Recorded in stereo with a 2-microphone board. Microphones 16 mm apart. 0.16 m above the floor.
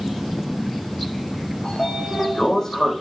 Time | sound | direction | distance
1.6 | a sliding door | 25° left (ahead or behind) | 5.5 m